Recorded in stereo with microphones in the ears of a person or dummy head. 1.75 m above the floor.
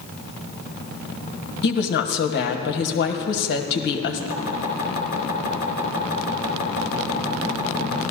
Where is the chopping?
50° left (ahead or behind), 3 m.